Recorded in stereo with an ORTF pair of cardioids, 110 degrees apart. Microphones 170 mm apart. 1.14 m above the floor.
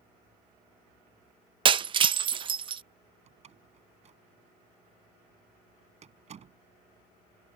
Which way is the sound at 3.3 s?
45° right.